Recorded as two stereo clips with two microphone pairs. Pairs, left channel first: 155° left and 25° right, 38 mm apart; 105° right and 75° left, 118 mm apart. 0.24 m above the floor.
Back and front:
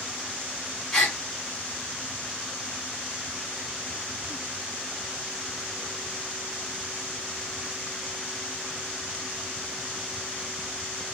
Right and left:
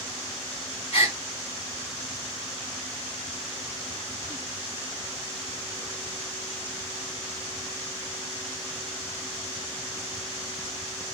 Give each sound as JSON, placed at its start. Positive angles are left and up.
{"t": 0.9, "sound": "a gasp", "azimuth_deg": -125, "distance_m": 3.0}